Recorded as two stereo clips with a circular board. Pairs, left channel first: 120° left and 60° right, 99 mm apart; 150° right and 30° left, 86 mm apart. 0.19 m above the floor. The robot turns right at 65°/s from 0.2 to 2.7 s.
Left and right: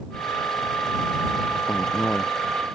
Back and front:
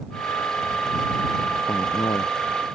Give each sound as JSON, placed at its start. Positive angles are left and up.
{"t": 1.7, "sound": "a man speaking", "azimuth_deg": 170}